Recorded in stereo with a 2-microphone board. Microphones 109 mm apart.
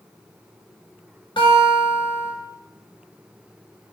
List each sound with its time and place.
1.4 s a guitar: 50° left (ahead or behind), 3 m